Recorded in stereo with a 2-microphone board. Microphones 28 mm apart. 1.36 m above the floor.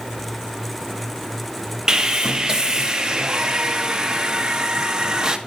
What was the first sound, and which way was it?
Sawing, 20° right (ahead or behind).